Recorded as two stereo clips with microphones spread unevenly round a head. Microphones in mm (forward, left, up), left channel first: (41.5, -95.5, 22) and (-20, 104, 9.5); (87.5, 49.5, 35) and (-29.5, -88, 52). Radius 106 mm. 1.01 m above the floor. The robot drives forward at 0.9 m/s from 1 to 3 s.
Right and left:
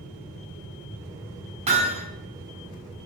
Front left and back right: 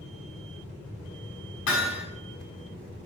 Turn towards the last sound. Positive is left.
turn(degrees=55)